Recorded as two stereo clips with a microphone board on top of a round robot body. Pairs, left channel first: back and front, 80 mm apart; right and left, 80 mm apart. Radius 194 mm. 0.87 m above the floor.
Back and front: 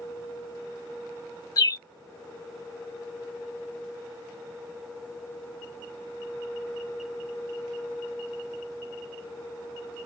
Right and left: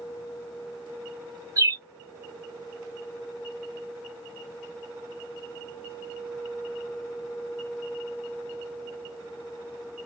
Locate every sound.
1.6 s a bird: 135° left, 0.6 m